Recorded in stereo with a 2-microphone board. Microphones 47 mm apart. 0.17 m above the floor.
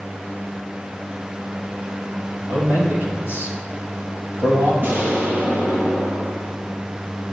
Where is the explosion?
50° right (ahead or behind), 3 m.